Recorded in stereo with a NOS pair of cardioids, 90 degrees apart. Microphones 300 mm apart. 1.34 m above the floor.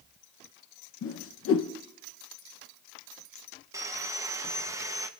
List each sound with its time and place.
1.0 s a whoosh: 50° left, 1.0 m
3.7 s sawing: 10° right, 0.9 m